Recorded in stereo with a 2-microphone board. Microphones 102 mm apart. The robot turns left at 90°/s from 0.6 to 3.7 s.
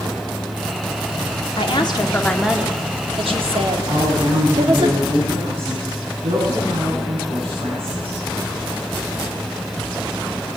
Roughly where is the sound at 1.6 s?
Left.